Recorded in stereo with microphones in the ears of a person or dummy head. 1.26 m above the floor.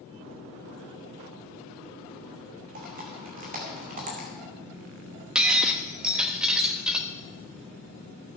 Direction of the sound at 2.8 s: 40° right (ahead or behind).